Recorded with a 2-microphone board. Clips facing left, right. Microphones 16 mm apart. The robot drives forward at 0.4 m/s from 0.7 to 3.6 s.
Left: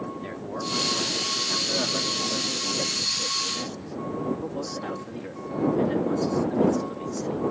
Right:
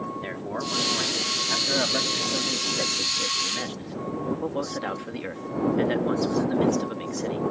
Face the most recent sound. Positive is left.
turn(degrees=-40)  # may be behind; listen again after turning